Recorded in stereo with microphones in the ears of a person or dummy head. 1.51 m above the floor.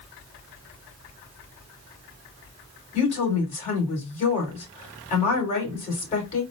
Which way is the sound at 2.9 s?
35° left (ahead or behind).